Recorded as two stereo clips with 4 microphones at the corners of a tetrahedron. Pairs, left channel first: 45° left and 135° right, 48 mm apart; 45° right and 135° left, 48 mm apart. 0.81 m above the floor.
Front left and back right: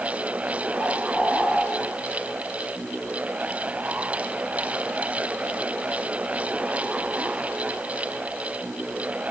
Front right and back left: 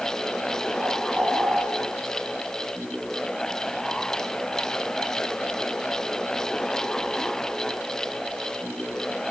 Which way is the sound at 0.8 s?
120° left.